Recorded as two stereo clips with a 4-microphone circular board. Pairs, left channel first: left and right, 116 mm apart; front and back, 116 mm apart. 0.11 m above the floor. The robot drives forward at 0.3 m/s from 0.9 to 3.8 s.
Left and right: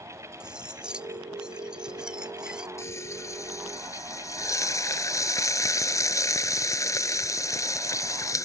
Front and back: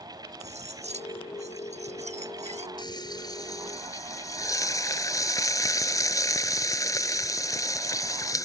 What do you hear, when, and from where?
0.4 s cutlery clinking: 175° right
2.8 s frying: 35° left; by 8.5 s 45° left